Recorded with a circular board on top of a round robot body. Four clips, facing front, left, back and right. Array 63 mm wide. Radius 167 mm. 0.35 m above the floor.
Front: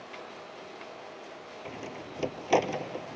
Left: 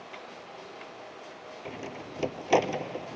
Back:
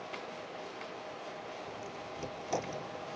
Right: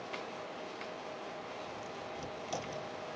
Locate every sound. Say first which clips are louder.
1.6 s a door slam: left 4 dB, front 2 dB; 55° left